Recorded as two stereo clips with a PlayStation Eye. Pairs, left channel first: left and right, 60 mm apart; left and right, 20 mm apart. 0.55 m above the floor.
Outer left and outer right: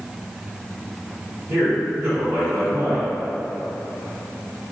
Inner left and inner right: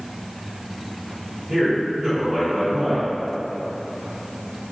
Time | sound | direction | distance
1.5 | a man speaking | 55° right (ahead or behind) | 1.8 m